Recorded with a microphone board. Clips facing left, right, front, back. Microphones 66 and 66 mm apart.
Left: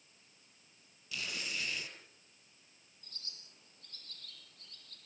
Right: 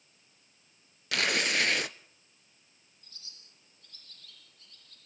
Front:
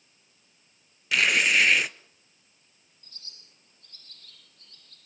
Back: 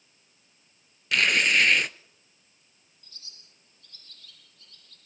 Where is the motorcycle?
No motorcycle in this recording.